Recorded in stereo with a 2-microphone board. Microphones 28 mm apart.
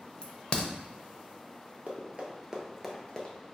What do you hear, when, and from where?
0.2 s a crack: 35° left (ahead or behind), 0.6 m
1.9 s running footsteps: 45° right (ahead or behind), 1.1 m; by 3.4 s 25° left (ahead or behind), 1.0 m